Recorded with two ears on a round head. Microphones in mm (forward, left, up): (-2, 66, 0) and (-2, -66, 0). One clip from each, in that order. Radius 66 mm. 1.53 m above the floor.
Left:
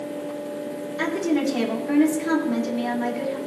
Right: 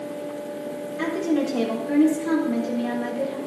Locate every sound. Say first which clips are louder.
1.0 s a woman speaking: left 1 dB; 60° left (ahead or behind), 3.5 m